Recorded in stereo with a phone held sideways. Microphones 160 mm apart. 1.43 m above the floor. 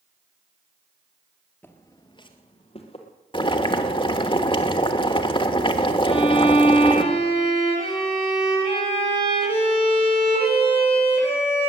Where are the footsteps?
10° left (ahead or behind), 1.5 m; by 3.1 s 40° left (ahead or behind), 2.5 m.